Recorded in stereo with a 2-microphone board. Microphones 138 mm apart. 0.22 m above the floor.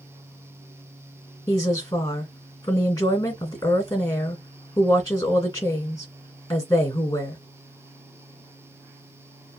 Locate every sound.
1.5 s a woman speaking: 25° left (ahead or behind), 1.9 m